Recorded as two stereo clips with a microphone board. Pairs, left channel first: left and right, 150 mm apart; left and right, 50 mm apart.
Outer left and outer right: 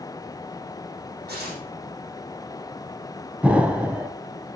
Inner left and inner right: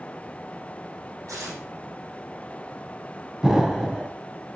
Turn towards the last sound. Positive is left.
turn(degrees=-10)  # may be behind; listen again after turning